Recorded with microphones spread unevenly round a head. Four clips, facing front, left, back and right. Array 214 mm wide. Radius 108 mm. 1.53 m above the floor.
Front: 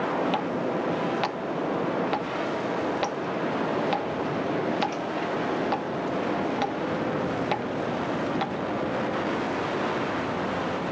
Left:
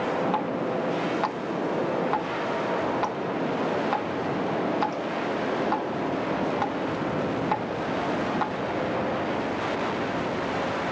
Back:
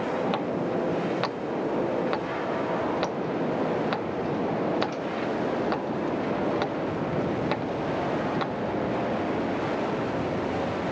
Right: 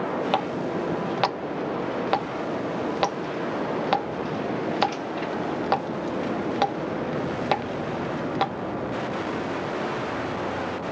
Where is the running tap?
120° right.